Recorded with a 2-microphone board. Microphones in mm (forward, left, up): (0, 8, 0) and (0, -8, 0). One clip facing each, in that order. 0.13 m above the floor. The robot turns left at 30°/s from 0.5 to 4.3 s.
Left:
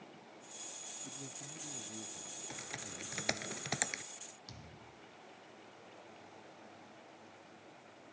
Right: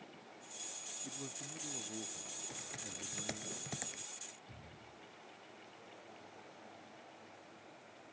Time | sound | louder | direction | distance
1.0 | a man speaking | right 1 dB | 60° right | ?
2.5 | typing on a keyboard | left 2 dB | 15° left (ahead or behind) | ?
4.5 | a thud | left 2 dB | 60° left (ahead or behind) | ?